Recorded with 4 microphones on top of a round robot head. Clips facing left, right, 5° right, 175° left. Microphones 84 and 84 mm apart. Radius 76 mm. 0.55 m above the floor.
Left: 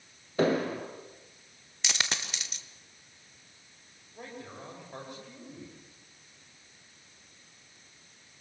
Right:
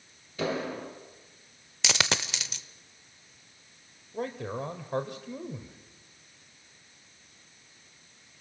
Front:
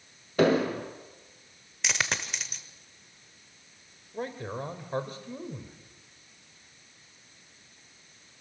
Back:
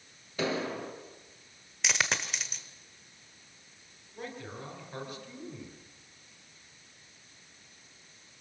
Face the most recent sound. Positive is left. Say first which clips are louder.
# right 10 dB, front 7 dB
turn(degrees=-65)